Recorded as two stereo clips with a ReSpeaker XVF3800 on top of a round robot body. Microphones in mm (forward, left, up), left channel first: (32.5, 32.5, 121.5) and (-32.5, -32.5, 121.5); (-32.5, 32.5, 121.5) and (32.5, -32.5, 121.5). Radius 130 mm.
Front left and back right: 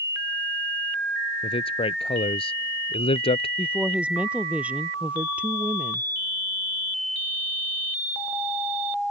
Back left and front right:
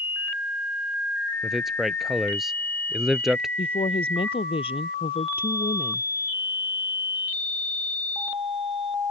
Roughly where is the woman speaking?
Behind left.